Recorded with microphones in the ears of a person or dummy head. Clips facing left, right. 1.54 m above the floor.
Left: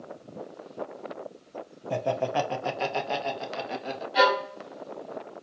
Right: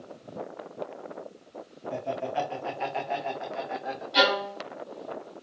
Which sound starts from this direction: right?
A violin, at 4.1 s.